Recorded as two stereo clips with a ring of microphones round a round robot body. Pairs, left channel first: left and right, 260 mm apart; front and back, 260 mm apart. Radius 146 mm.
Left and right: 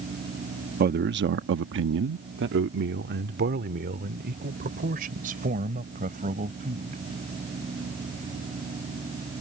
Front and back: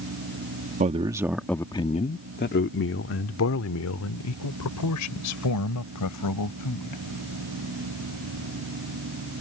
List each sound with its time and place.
0.8 s a man speaking: 130° right; by 7.0 s 25° right